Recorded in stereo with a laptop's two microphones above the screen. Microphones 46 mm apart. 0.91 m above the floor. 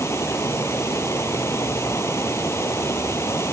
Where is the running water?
85° left.